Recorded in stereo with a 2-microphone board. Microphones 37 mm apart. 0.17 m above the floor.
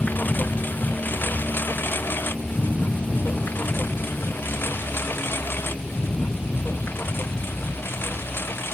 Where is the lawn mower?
60° left (ahead or behind); by 8.7 s 90° left.